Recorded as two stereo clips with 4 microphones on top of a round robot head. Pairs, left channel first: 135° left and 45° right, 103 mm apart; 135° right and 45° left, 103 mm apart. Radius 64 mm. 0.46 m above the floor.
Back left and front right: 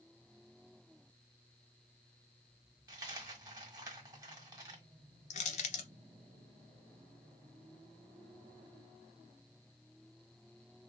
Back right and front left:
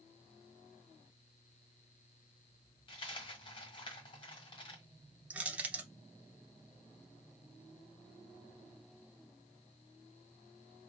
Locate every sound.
2.9 s a dropped coin: 100° right, 1.4 m
5.3 s crushing: 120° left, 0.5 m